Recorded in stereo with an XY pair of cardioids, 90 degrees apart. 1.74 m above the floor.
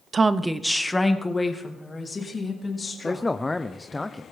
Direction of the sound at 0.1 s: 40° right.